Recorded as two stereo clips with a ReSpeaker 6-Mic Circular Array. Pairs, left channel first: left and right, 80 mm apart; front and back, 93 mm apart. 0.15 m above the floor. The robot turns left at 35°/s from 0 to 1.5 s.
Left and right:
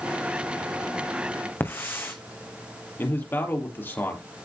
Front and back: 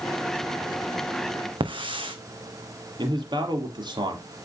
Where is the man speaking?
150° left, 3.5 m.